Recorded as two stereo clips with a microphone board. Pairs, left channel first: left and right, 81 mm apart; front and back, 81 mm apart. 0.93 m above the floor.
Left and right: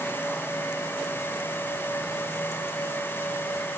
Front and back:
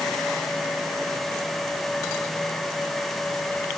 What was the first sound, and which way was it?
Only background noise.